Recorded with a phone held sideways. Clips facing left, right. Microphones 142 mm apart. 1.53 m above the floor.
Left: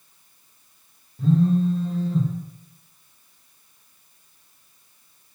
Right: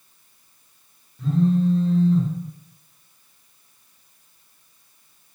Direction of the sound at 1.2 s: 35° left (ahead or behind).